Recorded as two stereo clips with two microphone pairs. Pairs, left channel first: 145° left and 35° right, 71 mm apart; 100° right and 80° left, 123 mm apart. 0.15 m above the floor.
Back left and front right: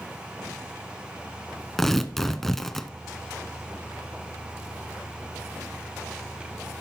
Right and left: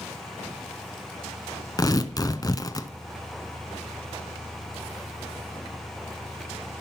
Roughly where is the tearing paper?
Behind right.